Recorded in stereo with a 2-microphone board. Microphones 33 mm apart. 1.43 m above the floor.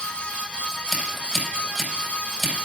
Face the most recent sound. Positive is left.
turn(degrees=-15)  # may be behind; listen again after turning